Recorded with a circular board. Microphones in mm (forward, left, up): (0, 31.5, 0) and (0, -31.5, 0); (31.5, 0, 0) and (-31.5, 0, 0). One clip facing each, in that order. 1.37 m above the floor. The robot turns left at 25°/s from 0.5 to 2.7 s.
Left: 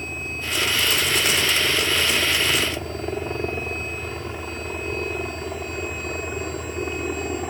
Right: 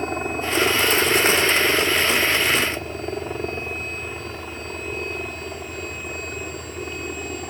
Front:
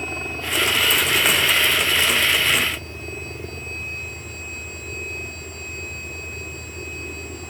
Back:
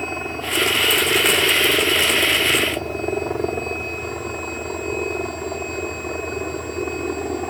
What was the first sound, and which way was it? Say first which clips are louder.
A helicopter: right 6 dB, back 3 dB; 110° right.